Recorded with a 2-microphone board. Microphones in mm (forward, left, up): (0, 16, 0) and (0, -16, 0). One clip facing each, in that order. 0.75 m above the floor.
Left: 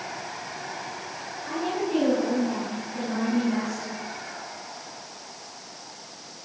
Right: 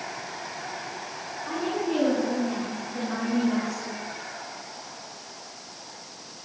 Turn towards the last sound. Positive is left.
turn(degrees=-20)  # may be behind; listen again after turning